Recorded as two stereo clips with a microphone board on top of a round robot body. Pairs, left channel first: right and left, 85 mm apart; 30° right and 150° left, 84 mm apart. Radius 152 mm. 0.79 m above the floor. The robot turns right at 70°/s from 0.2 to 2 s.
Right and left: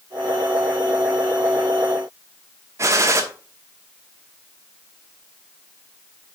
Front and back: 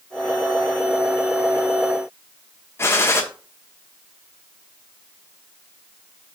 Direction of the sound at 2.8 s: 30° left.